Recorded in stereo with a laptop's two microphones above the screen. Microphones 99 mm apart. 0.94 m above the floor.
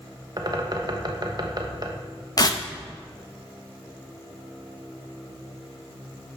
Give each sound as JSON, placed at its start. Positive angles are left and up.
{"t": 0.4, "sound": "a bird", "side_deg": -45, "distance_m": 0.9}
{"t": 2.4, "sound": "tearing paper", "side_deg": 40, "distance_m": 0.6}